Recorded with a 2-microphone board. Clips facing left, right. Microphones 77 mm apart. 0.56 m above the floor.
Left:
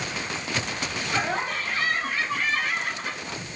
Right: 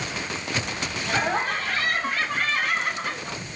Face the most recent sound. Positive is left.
turn(degrees=-70)  # may be behind; listen again after turning